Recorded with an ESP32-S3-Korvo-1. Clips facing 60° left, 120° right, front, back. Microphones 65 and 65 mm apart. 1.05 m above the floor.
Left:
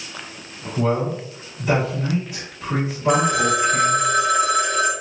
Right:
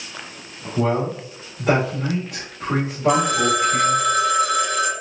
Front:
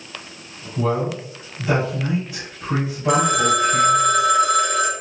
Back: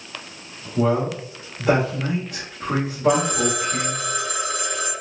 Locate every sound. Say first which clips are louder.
0.8 s a man speaking: even, back 1 dB; 155° right, 1.6 m
3.1 s a phone ringing: even, front 4 dB; straight ahead, 1.0 m